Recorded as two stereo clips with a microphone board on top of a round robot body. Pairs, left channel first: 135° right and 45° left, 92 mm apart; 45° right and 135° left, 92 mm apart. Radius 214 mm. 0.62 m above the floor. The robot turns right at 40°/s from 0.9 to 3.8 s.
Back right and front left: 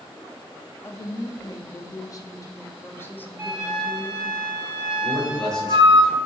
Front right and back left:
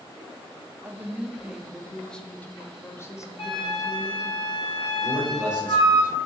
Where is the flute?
15° right, 1.2 m; by 6.0 s straight ahead, 1.2 m.